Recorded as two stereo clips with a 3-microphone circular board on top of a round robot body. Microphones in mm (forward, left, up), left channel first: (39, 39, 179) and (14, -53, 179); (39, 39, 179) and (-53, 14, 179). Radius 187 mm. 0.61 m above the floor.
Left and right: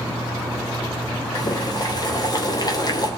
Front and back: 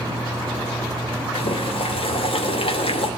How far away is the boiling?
About 3 m.